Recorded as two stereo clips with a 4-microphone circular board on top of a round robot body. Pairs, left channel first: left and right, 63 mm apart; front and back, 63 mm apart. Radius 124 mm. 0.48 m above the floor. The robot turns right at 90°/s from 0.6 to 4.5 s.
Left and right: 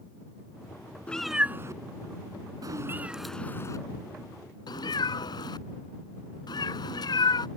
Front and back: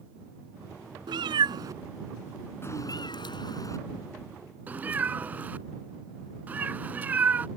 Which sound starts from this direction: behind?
A cat meowing, at 1.1 s.